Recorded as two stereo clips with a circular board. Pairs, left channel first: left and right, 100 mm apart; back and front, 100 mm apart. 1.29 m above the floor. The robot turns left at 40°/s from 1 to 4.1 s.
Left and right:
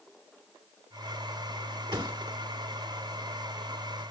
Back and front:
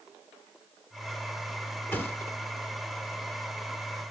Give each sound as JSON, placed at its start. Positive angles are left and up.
{"t": 1.9, "sound": "a thud", "azimuth_deg": -115, "distance_m": 1.3}